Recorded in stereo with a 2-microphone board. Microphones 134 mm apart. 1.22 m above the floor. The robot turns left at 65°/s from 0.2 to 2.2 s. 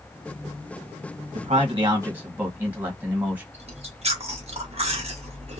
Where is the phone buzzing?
No phone buzzing in this recording.